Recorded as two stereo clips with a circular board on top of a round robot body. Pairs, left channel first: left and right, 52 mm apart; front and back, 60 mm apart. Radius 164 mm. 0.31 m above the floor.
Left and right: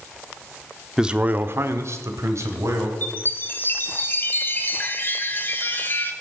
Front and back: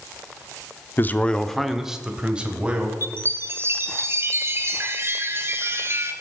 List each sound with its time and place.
1.0 s a man speaking: 15° right, 1.0 m; by 2.9 s 110° right, 3 m
3.0 s a chime: 135° left, 1.3 m